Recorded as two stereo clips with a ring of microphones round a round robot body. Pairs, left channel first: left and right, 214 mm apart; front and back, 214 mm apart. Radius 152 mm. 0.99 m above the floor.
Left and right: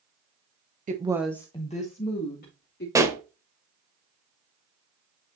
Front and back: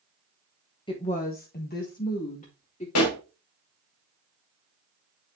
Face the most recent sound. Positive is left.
turn(degrees=-15)